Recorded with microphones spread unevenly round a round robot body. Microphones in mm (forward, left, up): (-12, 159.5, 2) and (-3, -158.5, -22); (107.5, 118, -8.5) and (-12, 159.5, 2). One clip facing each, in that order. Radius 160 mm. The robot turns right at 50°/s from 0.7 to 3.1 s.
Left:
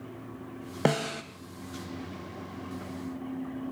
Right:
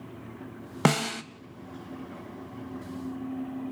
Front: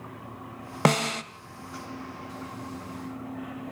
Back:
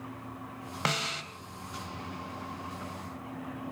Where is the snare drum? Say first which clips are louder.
Right 2 dB, front 11 dB; 35° right, 0.8 m; by 1.2 s 15° right, 0.8 m.